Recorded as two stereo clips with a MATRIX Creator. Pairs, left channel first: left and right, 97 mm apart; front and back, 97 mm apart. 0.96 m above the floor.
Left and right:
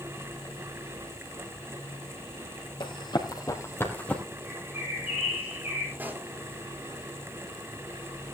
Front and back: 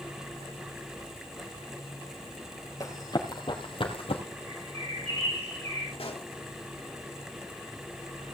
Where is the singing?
I don't hear singing.